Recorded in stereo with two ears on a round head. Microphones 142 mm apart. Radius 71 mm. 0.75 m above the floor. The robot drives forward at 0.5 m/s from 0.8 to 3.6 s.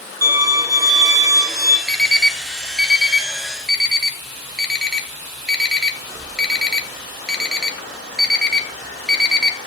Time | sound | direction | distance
0.2 | a violin | 20° right (ahead or behind) | 1.2 m
1.9 | an alarm clock | centre (ahead or behind) | 0.8 m